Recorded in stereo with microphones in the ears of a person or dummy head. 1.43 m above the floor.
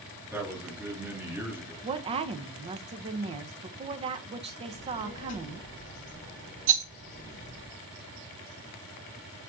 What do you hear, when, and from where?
0.3 s a man speaking: 15° right (ahead or behind), 3 m
1.8 s a woman speaking: 30° right (ahead or behind), 1.0 m
4.7 s a child speaking: 45° left (ahead or behind), 4 m
6.7 s a rattle: 40° right (ahead or behind), 0.7 m